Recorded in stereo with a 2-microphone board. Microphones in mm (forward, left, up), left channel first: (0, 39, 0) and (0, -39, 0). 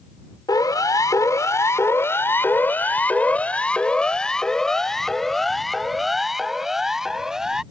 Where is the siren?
55° left (ahead or behind); by 7.6 s 5° right (ahead or behind).